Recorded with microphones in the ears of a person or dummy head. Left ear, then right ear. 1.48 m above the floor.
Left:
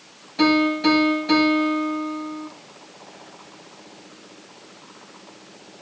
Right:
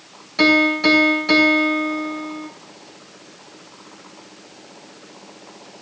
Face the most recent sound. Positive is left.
turn(degrees=-50)  # may be behind; listen again after turning